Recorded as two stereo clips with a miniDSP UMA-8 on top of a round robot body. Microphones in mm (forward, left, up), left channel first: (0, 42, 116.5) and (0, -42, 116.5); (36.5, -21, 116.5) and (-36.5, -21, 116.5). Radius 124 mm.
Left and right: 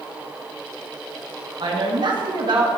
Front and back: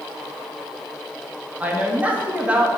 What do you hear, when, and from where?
1.6 s a woman speaking: 110° right, 2 m